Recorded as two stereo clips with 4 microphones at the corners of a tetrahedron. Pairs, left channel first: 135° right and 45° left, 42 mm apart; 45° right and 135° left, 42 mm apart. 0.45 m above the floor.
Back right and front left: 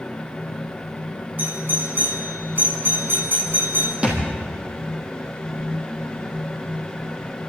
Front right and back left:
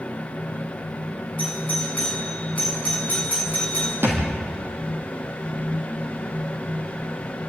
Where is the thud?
110° left, 4 m.